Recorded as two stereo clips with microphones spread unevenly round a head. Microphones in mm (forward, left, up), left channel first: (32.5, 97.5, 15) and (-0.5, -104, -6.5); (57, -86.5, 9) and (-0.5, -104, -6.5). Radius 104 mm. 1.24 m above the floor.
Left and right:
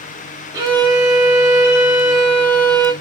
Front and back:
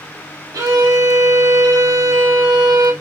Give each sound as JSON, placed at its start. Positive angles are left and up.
{"t": 0.5, "sound": "a violin", "azimuth_deg": -170, "distance_m": 0.6}